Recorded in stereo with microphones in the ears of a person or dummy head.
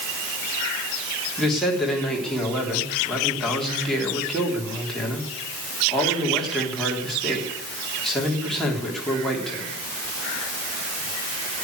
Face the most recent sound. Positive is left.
turn(degrees=5)  # may be behind; listen again after turning